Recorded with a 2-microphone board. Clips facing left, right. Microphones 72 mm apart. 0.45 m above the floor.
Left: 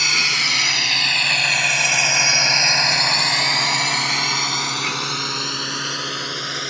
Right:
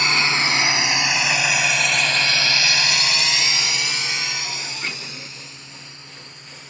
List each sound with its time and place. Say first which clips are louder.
0.0 s a drone: right 2 dB; 30° right (ahead or behind); by 6.7 s 75° left (ahead or behind)